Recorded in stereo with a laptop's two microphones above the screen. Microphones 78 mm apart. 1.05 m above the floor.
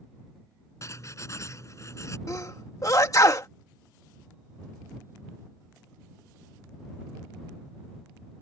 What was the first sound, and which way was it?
Writing, 40° left (ahead or behind).